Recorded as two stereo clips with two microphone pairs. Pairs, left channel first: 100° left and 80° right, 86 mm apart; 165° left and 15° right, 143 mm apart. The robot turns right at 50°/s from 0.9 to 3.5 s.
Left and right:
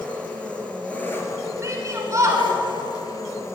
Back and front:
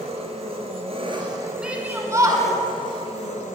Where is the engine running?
25° left, 1.1 m; by 3.5 s 155° left, 1.1 m.